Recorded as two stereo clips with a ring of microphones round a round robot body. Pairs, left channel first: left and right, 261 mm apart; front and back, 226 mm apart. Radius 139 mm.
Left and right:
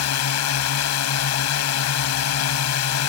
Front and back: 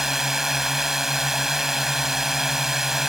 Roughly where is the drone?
Left.